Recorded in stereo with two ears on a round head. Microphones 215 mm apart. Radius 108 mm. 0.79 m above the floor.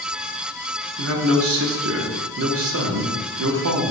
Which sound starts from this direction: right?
A man speaking, at 1.0 s.